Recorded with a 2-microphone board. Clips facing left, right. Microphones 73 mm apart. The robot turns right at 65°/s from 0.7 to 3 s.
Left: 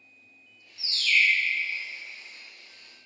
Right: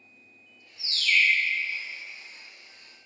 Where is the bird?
135° right, 0.6 m; by 1.3 s 100° right, 0.6 m.